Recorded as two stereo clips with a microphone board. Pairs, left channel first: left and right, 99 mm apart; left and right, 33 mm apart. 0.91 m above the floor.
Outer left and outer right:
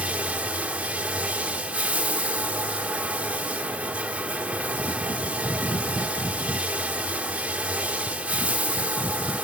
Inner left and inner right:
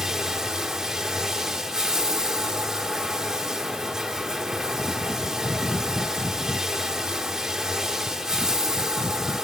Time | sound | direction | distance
0.0 | running water | 15° right (ahead or behind) | 1.8 m